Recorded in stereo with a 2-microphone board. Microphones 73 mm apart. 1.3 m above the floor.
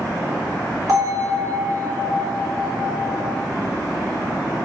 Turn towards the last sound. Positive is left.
turn(degrees=-50)  # may be behind; listen again after turning